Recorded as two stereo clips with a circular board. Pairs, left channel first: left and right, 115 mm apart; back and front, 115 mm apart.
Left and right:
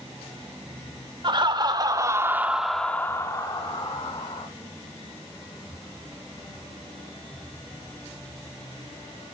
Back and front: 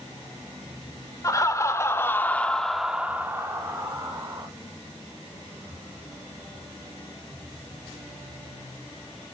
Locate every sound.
1.2 s laughter: 125° right, 1.4 m; by 4.5 s 55° left, 1.6 m